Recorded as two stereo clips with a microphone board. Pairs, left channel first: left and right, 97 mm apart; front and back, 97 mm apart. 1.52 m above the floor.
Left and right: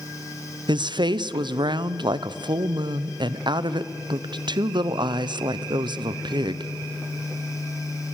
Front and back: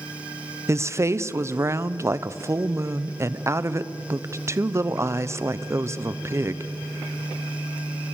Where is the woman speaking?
120° right, 0.7 m.